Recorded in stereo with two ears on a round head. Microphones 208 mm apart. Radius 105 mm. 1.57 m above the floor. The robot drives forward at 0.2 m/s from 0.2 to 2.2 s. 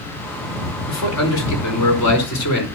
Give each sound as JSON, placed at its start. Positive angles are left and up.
{"t": 0.9, "sound": "a man speaking", "side_deg": 85, "distance_m": 5.0}